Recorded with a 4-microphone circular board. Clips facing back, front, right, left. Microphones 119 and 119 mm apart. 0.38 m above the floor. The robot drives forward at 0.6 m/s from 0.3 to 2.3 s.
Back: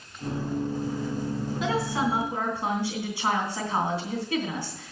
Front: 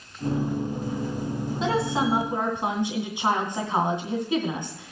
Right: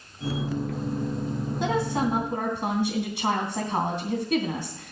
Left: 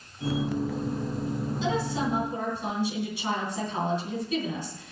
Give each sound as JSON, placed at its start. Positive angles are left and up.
{"t": 1.6, "sound": "a woman speaking", "azimuth_deg": -60, "distance_m": 3.0}